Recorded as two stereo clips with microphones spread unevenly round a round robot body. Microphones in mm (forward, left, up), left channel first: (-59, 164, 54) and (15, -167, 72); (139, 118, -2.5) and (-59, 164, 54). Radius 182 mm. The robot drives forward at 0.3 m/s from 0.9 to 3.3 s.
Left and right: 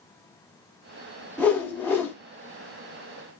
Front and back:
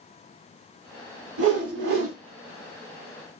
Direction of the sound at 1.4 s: 175° right.